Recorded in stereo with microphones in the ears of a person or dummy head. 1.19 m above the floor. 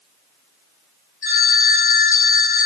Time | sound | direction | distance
1.2 | a phone ringing | 50° left (ahead or behind) | 1.3 m